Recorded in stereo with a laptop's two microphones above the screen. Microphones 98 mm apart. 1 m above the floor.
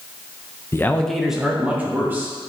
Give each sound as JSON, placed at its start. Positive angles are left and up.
{"t": 0.7, "sound": "a man speaking", "side_deg": 30, "distance_m": 0.5}